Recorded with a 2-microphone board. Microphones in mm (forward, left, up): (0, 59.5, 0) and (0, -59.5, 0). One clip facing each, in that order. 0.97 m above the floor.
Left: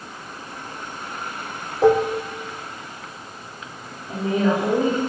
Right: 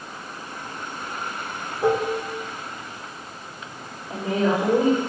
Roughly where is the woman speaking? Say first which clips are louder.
Left 2 dB; left.